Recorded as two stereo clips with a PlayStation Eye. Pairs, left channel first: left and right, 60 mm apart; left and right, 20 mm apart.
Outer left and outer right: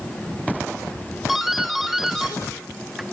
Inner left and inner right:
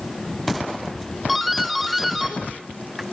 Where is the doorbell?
5° right (ahead or behind), 1.6 m.